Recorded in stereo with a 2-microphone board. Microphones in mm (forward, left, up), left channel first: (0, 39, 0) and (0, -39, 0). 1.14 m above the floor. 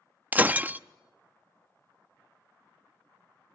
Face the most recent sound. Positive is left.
turn(degrees=-20)  # may be behind; listen again after turning